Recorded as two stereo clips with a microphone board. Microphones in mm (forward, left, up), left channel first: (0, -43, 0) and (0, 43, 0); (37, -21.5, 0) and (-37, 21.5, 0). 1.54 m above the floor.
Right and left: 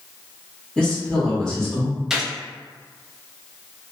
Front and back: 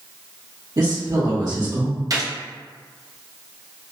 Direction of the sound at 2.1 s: 170° left.